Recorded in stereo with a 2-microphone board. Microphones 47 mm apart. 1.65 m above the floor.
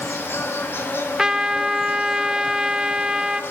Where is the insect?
55° left (ahead or behind), 1.6 m.